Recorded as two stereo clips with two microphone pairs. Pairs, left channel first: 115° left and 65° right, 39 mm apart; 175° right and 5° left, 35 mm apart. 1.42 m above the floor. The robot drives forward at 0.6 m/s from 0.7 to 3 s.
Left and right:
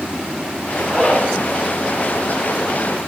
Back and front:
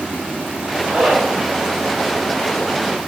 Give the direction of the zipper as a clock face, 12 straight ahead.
11 o'clock.